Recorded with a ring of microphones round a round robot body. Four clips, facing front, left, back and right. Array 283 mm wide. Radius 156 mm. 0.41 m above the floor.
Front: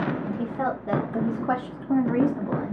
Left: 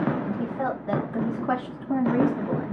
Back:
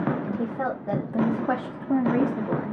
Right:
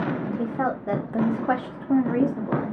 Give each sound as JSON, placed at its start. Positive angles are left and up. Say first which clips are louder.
{"t": 0.2, "sound": "a woman speaking", "louder": "right 2 dB, even", "azimuth_deg": -80, "distance_m": 1.6}